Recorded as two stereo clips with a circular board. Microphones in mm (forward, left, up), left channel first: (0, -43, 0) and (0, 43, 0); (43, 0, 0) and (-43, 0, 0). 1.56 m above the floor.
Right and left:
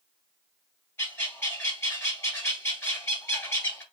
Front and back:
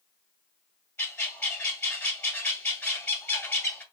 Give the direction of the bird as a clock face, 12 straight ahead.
1 o'clock.